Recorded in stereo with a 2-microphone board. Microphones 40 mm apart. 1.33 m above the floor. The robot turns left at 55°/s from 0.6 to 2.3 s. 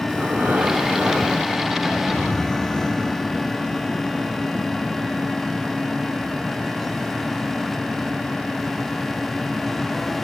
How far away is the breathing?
About 1.1 m.